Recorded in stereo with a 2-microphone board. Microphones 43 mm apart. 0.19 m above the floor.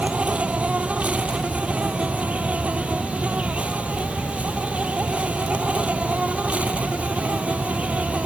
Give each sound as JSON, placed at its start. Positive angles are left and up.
{"t": 0.0, "sound": "an insect", "side_deg": -35}